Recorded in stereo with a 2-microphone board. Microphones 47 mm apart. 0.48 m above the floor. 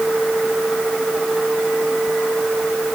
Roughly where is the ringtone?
I don't hear a ringtone.